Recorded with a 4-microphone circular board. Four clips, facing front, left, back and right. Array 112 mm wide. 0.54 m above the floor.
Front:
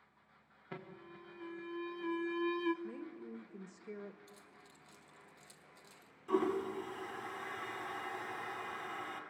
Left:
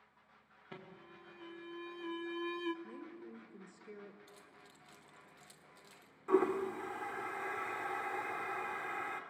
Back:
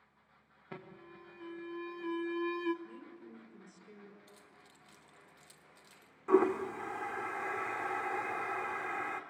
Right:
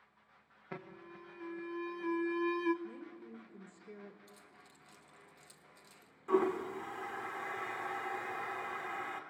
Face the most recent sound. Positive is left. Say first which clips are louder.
# even, back 6 dB
turn(degrees=170)